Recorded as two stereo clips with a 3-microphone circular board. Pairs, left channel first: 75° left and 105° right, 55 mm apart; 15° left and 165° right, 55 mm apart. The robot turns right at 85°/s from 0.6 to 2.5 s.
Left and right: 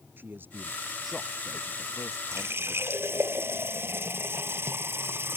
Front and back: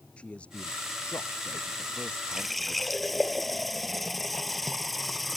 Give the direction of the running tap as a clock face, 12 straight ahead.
3 o'clock.